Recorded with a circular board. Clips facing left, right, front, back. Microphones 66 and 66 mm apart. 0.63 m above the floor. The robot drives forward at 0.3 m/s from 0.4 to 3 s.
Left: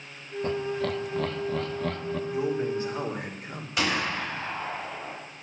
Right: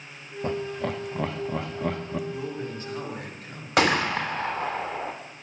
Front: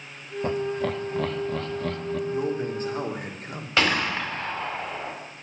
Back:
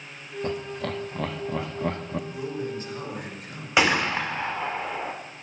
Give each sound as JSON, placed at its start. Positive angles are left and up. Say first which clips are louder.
{"t": 0.4, "sound": "laughter", "louder": "even, front 5 dB", "azimuth_deg": -40, "distance_m": 0.7}
{"t": 2.3, "sound": "a man speaking", "louder": "left 6 dB, front 5 dB", "azimuth_deg": 25, "distance_m": 1.9}
{"t": 3.8, "sound": "a gunshot", "louder": "right 6 dB, back 2 dB", "azimuth_deg": -110, "distance_m": 1.5}